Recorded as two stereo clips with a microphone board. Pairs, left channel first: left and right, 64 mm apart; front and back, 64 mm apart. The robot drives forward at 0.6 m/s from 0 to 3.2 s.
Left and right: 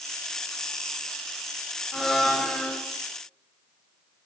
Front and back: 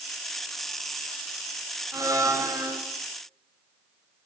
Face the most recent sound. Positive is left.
turn(degrees=180)